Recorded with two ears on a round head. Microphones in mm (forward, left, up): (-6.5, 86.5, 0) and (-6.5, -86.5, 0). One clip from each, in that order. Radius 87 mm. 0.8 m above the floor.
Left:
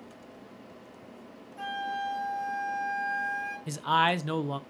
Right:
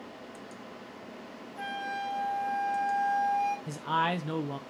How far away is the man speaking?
About 0.5 m.